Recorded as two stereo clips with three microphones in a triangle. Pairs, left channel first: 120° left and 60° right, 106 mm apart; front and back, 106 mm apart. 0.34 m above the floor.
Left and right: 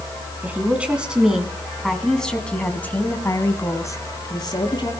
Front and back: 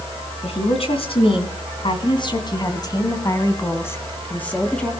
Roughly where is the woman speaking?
Ahead.